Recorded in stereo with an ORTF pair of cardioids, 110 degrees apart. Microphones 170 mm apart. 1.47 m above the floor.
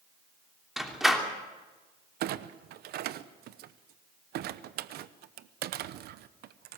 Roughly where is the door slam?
Ahead.